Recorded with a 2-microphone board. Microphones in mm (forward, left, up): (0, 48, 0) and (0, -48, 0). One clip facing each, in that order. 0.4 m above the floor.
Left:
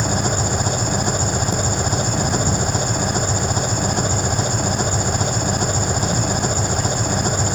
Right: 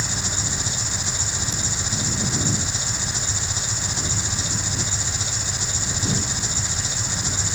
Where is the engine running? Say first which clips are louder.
Left 10 dB; 55° left (ahead or behind).